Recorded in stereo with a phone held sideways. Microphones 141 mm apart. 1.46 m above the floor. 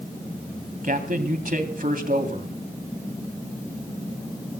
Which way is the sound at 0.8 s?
75° right (ahead or behind).